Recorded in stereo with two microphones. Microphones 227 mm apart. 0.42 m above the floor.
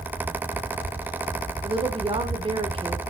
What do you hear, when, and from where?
1.6 s a woman speaking: 25° right (ahead or behind), 1.0 m